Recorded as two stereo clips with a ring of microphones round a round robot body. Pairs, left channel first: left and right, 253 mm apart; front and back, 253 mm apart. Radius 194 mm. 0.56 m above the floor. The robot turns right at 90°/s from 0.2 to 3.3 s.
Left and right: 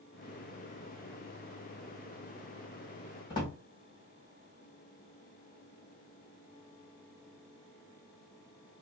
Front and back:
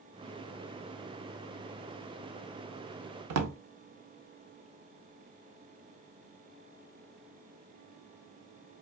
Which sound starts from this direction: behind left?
A drawer, at 3.3 s.